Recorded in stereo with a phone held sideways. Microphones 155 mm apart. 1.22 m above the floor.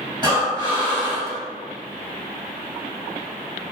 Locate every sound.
0.2 s breathing: 30° right (ahead or behind), 1.2 m